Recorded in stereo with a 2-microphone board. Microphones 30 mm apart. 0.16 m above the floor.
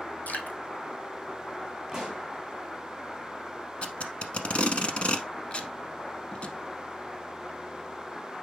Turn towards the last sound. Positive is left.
turn(degrees=40)  # may be behind; listen again after turning